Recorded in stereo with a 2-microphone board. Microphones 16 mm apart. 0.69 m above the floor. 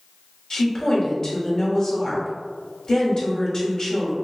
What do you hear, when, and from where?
0.5 s a woman speaking: 40° left (ahead or behind), 1.8 m